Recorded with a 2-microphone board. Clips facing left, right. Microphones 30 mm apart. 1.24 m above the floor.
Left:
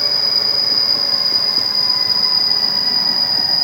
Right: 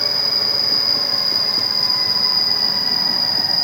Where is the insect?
50° left (ahead or behind), 1.2 m.